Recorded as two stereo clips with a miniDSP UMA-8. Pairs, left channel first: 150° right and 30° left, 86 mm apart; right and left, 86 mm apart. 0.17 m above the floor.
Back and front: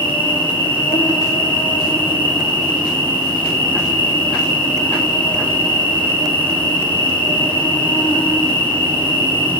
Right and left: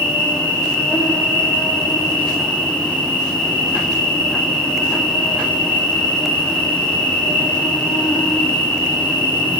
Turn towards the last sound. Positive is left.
turn(degrees=-165)